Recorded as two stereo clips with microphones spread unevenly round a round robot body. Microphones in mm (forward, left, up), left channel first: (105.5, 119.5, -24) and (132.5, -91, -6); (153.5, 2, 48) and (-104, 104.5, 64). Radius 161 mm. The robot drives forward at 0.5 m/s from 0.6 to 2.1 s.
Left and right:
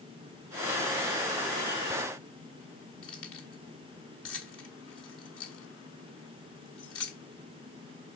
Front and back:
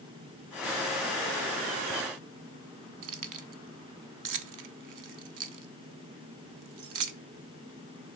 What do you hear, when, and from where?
3.0 s keys jangling: 140° left, 0.7 m